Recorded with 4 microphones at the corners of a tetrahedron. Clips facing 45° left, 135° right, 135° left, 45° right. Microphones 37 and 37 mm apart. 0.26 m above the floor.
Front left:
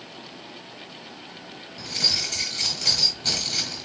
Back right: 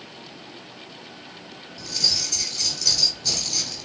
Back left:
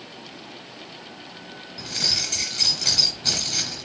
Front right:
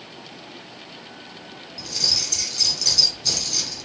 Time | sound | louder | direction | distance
1.8 | keys jangling | even, even | 80° left | 2.0 m